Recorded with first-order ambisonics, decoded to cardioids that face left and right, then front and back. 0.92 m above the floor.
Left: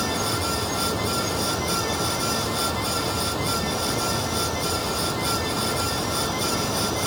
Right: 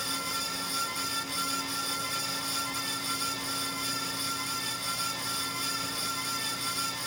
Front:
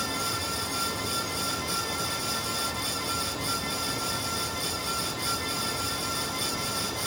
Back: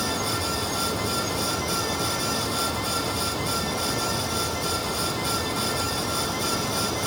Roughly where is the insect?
Left.